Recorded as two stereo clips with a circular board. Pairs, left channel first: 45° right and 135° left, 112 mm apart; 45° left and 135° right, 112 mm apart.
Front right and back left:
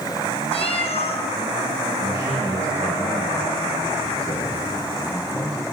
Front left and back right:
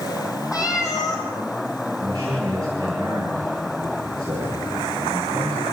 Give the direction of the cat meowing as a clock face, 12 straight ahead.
12 o'clock.